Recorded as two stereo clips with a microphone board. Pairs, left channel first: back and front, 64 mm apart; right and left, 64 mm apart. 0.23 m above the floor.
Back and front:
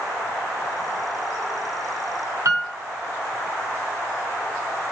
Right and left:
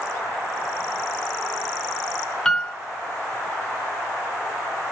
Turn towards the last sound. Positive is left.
turn(degrees=-10)